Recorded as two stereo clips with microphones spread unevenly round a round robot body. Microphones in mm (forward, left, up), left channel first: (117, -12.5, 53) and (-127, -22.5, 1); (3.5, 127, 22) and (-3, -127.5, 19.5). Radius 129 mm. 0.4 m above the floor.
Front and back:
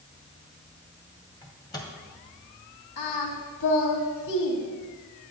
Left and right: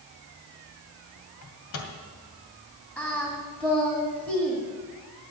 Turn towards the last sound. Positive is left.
turn(degrees=5)